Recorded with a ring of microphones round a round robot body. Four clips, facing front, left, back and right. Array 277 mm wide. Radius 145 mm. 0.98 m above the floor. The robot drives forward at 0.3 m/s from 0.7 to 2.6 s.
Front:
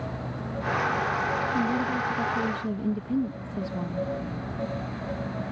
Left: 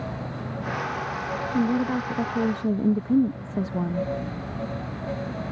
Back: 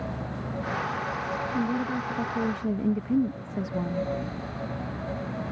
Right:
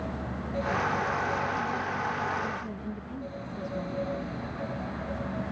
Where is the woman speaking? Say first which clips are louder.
Left 7 dB, front 2 dB; 90° left; by 4.1 s 100° left.